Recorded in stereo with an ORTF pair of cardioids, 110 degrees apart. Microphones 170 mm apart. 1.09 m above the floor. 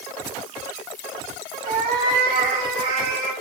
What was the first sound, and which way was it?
A cat meowing, 60° right.